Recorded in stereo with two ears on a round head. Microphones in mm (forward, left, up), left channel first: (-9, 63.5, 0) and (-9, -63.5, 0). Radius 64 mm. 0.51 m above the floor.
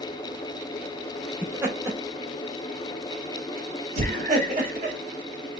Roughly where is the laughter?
Centre.